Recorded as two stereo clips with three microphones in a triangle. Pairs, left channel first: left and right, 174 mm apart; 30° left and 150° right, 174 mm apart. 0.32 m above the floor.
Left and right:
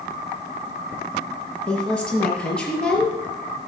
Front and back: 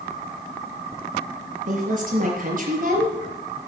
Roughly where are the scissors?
No scissors in this recording.